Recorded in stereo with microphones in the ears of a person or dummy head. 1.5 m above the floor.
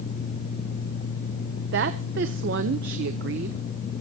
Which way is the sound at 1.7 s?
55° right (ahead or behind).